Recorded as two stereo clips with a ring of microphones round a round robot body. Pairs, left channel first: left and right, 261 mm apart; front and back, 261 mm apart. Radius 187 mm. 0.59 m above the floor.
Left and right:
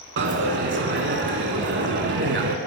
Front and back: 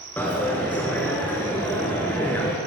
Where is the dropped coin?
80° right, 0.6 m.